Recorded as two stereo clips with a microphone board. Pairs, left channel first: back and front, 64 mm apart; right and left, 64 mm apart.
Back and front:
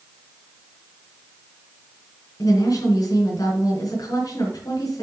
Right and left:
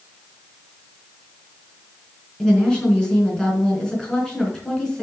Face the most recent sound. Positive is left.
turn(degrees=-170)